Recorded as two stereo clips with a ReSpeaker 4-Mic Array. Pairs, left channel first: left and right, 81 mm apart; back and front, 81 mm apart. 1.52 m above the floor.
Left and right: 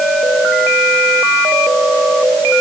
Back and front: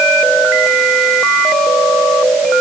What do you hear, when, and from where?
Only background noise.